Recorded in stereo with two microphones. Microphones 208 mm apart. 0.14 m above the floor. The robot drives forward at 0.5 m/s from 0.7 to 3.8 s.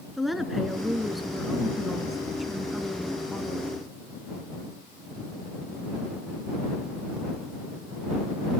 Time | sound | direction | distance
0.2 | a woman speaking | centre (ahead or behind) | 1.5 m